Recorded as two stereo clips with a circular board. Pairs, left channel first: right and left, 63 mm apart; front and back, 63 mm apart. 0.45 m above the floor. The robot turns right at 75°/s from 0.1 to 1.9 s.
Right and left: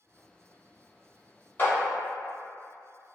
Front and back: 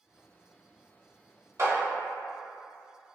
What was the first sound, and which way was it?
A clap, 145° right.